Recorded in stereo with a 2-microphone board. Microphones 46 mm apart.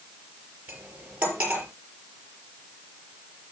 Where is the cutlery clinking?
25° right (ahead or behind), 5 m.